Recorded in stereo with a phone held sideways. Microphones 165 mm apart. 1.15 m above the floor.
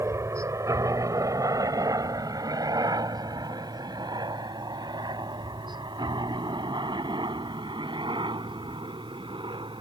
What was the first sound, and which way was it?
A helicopter, 15° right (ahead or behind).